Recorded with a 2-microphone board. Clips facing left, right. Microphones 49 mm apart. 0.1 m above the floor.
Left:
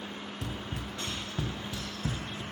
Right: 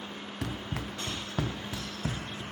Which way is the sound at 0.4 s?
65° right (ahead or behind).